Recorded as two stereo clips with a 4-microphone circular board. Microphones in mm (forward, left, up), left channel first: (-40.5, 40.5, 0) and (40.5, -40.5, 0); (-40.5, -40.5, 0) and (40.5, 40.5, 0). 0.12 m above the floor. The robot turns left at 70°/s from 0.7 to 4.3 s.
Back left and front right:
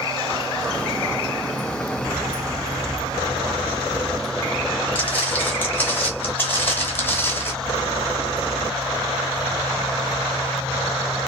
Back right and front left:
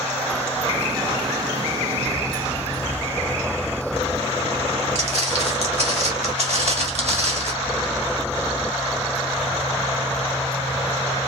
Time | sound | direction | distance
5.0 | footsteps | 60° left | 3.5 m